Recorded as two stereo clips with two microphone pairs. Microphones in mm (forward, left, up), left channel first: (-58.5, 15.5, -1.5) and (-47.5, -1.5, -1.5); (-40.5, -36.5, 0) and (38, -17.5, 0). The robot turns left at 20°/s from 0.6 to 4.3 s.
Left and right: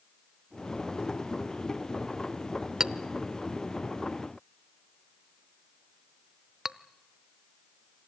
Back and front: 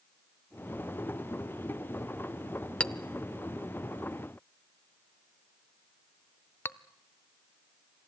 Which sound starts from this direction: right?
A clink, at 2.8 s.